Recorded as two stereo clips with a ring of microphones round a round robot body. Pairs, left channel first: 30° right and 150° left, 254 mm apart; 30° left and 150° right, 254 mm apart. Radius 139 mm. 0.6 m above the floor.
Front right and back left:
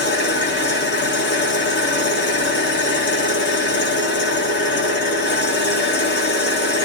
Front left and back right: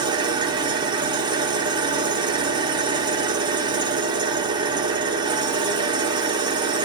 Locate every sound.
0.0 s an engine running: 75° right, 0.9 m